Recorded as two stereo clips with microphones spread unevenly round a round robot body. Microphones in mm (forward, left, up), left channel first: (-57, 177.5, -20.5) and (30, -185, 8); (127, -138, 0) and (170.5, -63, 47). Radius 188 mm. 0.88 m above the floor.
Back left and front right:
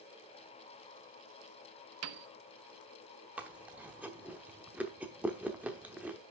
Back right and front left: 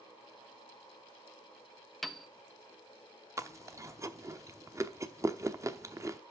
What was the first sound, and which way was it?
A piano, 95° right.